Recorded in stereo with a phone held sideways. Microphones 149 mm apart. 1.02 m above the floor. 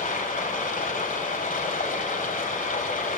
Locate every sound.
0.0 s running water: 65° left (ahead or behind), 4 m